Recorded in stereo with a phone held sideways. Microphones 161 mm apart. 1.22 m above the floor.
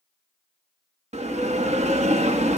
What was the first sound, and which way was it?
A bell, 45° right (ahead or behind).